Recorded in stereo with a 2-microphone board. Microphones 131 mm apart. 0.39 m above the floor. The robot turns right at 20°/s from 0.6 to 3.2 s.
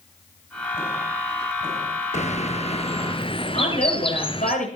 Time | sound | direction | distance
2.1 | a bird | 65° left (ahead or behind) | 1.3 m
3.5 | a woman speaking | 80° left | 10 m